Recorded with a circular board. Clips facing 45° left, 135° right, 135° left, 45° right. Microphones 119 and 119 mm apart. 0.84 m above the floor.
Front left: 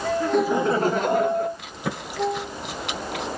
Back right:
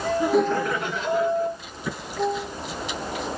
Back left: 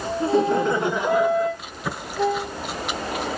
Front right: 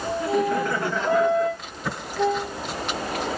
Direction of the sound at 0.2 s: 165° left.